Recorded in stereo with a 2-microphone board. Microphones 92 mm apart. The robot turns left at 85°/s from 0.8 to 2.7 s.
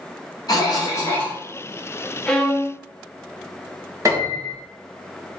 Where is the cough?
60° left, 0.9 m; by 1.4 s 15° left, 0.9 m.